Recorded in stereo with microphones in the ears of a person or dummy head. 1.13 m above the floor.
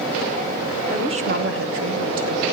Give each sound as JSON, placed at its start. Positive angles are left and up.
{"t": 0.9, "sound": "a woman speaking", "side_deg": -5, "distance_m": 0.8}